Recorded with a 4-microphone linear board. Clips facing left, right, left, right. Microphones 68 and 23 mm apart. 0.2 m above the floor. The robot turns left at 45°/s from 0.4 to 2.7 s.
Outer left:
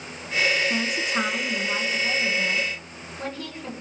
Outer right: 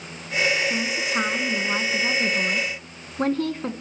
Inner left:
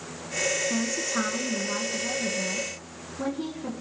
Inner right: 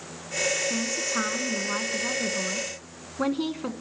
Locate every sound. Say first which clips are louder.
0.7 s a woman speaking: even, even; 15° left, 1.6 m; by 3.7 s 75° right, 1.6 m